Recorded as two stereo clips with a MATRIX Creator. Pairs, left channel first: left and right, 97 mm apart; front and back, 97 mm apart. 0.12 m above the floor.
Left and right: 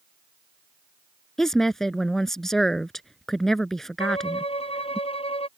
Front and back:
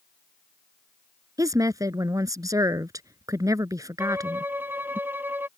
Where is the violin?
110° left.